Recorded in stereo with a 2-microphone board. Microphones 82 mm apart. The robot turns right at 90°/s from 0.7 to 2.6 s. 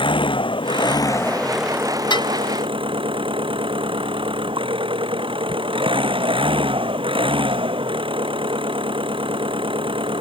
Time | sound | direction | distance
0.0 | an engine running | 105° left | ?
2.1 | dishes clattering | 55° left (ahead or behind) | ?